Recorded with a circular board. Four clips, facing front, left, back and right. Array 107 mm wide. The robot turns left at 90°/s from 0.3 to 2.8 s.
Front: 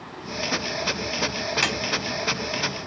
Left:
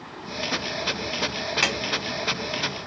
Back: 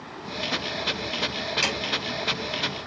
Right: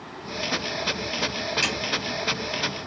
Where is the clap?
60° left, 2.0 m; by 1.8 s 45° left, 2.0 m.